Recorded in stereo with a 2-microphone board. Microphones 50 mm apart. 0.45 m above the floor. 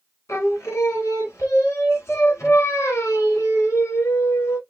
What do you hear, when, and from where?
0.3 s singing: 80° left, 0.9 m